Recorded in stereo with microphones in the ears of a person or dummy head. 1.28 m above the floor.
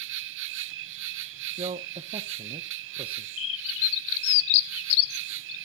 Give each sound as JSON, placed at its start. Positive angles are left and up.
{"t": 0.0, "sound": "an insect", "side_deg": -65, "distance_m": 0.7}
{"t": 1.6, "sound": "a man speaking", "side_deg": -30, "distance_m": 0.7}
{"t": 3.4, "sound": "a bird", "side_deg": 65, "distance_m": 1.1}